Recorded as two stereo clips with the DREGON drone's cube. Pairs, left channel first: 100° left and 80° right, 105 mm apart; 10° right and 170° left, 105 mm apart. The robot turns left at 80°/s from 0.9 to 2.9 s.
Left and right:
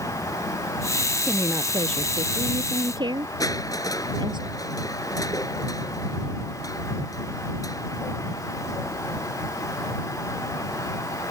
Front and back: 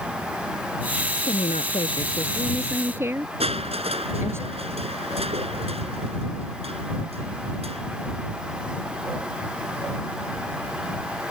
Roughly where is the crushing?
Behind left.